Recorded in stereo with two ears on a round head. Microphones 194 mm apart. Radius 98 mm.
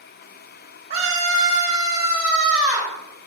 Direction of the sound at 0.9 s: 30° right (ahead or behind).